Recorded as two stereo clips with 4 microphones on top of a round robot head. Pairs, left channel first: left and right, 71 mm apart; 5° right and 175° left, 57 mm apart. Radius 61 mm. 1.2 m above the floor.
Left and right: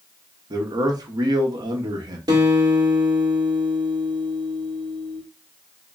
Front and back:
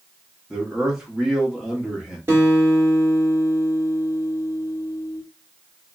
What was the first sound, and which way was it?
A man speaking, 105° right.